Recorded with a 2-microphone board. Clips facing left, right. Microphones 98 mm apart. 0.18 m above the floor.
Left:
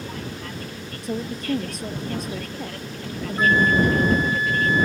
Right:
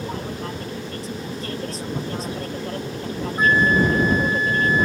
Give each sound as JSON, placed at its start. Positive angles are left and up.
{"t": 0.0, "sound": "an aircraft", "side_deg": -30}
{"t": 1.0, "sound": "a woman speaking", "side_deg": 60}
{"t": 3.4, "sound": "a flute", "side_deg": -10}